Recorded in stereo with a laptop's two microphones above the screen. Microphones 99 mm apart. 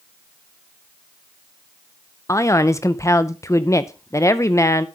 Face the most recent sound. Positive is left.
turn(degrees=30)  # may be behind; listen again after turning